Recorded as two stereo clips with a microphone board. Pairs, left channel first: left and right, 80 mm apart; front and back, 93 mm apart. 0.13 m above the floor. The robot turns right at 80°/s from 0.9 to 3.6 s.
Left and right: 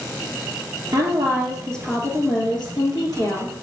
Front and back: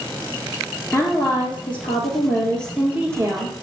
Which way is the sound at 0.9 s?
55° right.